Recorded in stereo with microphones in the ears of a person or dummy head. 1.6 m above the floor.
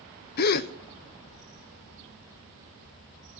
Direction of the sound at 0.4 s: 50° left (ahead or behind).